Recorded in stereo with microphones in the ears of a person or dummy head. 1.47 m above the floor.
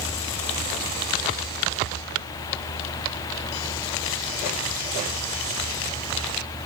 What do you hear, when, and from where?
Only background noise.